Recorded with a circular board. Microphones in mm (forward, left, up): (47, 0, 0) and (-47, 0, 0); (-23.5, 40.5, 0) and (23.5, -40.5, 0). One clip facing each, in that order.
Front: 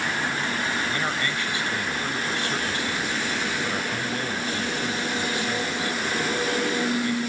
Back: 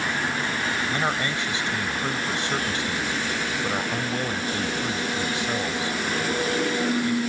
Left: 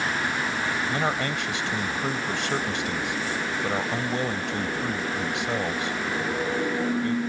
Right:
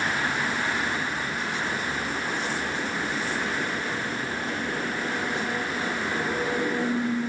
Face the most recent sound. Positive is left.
turn(degrees=110)